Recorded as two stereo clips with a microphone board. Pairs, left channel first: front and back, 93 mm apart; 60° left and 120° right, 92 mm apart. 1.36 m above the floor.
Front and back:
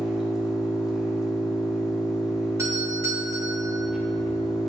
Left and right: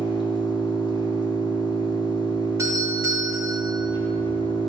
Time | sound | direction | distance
0.0 | an engine running | 95° left | 0.8 m
2.6 | a doorbell | 145° right | 0.8 m